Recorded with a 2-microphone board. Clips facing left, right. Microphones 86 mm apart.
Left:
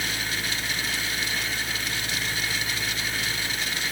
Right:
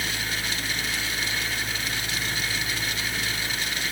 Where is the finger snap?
No finger snap in this recording.